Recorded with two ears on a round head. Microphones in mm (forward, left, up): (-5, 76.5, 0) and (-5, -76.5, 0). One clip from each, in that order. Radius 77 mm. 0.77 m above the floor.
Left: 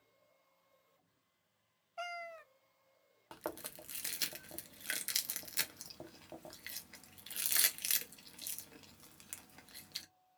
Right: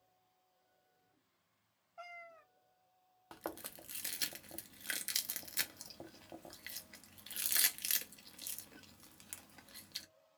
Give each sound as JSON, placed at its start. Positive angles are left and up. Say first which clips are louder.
{"t": 2.0, "sound": "a cat meowing", "louder": "left 8 dB", "side_deg": 65, "distance_m": 0.5}
{"t": 3.3, "sound": "chewing", "louder": "left 2 dB", "side_deg": 0, "distance_m": 0.8}